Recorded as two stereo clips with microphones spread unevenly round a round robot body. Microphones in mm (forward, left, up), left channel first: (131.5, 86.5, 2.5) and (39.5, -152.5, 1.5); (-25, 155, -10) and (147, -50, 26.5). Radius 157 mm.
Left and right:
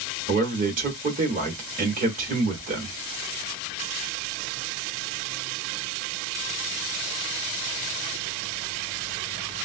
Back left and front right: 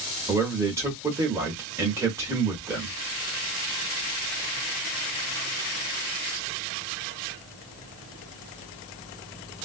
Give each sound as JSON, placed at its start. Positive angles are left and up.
{"t": 0.3, "sound": "a man speaking", "azimuth_deg": -135, "distance_m": 1.1}